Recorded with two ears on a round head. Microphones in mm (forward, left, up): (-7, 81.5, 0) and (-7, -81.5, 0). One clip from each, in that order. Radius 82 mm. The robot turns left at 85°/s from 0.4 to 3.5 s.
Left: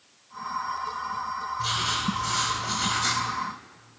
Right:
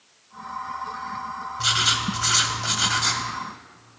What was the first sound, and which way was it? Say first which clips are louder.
Writing: right 7 dB; 40° right.